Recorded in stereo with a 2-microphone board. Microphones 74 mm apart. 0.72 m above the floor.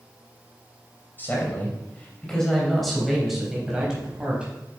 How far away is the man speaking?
About 3 m.